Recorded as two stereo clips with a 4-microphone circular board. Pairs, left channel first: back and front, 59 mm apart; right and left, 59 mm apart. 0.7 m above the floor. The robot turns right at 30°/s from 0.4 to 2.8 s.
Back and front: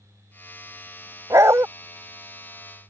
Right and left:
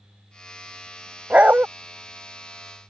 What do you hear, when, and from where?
1.3 s a dog barking: 25° left; by 1.7 s 35° left